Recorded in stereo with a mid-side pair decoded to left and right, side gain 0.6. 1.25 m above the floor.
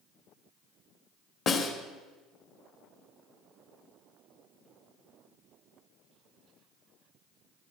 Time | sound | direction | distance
1.5 | a snare drum | 45° left | 2 m